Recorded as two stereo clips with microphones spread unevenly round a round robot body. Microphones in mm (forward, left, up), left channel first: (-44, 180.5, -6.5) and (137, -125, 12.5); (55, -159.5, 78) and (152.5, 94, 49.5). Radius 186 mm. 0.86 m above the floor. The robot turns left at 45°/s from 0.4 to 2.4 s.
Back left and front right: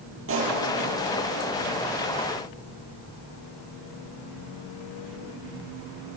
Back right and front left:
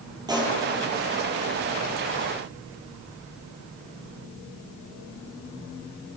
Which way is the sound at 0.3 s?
5° right.